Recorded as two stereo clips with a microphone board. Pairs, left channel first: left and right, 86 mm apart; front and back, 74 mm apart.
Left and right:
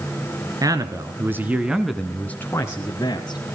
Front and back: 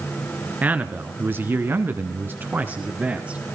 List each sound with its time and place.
0.6 s a man speaking: 115° right, 2.5 m; by 3.4 s 110° left, 2.5 m